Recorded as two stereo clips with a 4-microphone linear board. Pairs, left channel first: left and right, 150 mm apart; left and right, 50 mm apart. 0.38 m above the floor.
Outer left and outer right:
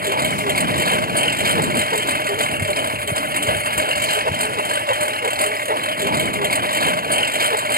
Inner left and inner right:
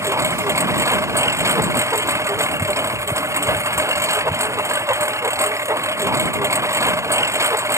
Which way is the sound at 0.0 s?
75° right (ahead or behind).